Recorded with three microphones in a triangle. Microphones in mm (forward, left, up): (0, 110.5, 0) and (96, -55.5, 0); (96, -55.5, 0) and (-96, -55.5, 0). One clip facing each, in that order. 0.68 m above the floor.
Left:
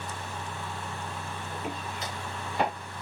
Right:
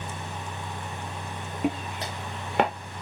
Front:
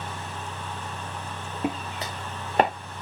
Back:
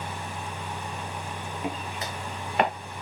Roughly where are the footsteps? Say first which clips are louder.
Right 10 dB, front 5 dB; ahead right.